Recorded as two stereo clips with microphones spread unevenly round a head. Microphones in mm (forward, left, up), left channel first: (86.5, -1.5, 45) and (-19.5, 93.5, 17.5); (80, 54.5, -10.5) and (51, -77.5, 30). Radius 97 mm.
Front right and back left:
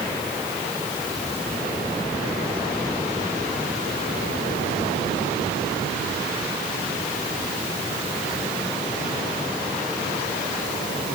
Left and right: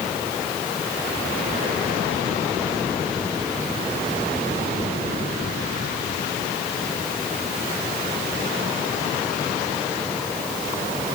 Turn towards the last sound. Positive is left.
No sound to turn to.